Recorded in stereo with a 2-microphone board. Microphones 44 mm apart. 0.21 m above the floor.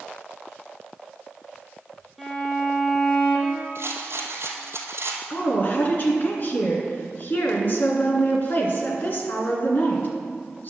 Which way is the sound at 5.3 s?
45° left (ahead or behind).